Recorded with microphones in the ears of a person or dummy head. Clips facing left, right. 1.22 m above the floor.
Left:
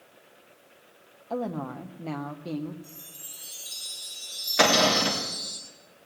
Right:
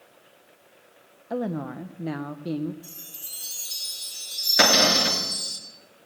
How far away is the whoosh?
I don't hear a whoosh.